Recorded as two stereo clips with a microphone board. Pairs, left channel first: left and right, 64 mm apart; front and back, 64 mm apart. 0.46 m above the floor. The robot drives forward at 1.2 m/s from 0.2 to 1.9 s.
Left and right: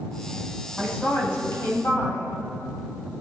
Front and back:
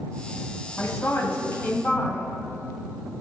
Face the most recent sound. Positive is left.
turn(degrees=55)